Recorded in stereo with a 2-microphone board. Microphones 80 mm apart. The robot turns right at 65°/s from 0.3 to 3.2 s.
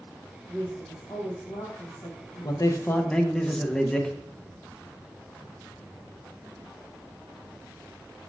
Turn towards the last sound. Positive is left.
turn(degrees=170)